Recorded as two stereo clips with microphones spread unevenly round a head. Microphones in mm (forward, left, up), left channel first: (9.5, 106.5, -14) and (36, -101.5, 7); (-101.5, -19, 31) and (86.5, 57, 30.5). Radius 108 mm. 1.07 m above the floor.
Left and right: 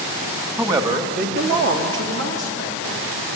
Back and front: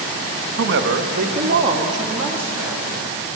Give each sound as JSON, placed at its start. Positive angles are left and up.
{"t": 0.6, "sound": "a man speaking", "azimuth_deg": -5, "distance_m": 1.8}